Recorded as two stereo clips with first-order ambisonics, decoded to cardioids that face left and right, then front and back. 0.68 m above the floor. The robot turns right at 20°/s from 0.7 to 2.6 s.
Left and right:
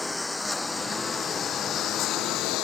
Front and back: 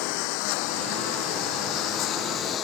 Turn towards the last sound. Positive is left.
turn(degrees=55)